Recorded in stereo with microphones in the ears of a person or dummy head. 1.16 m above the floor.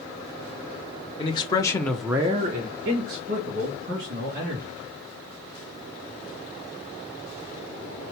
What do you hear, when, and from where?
1.2 s a man speaking: 30° left (ahead or behind), 1.2 m; by 4.8 s 50° right (ahead or behind), 3 m